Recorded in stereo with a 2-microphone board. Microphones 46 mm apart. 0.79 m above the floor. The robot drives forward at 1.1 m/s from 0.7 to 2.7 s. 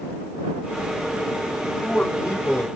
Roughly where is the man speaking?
Left.